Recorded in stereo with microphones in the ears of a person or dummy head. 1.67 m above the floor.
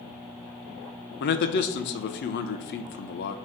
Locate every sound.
1.2 s a man speaking: 55° left (ahead or behind), 0.8 m